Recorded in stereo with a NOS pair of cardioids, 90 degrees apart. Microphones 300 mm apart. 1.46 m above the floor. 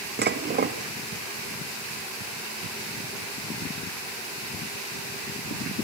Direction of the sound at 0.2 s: 35° right.